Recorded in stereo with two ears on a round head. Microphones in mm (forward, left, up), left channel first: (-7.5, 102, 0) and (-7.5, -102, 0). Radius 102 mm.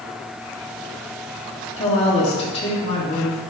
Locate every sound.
1.8 s a woman speaking: 25° left (ahead or behind), 3 m